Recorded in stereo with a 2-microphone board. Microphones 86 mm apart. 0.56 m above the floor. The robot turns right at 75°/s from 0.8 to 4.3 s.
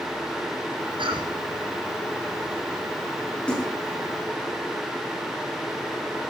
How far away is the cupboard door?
I don't hear a cupboard door.